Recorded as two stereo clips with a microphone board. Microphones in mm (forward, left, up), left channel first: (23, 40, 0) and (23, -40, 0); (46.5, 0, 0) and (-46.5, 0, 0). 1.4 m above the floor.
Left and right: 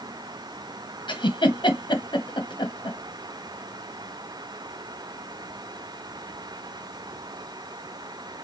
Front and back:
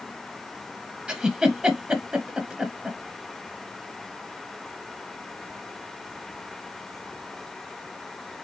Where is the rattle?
No rattle in this recording.